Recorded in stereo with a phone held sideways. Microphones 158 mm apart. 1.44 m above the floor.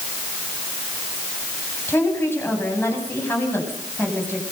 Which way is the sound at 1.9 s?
15° left (ahead or behind).